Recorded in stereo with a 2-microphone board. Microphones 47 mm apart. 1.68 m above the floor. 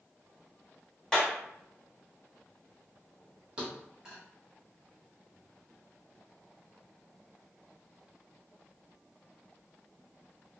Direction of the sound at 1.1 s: 10° left (ahead or behind).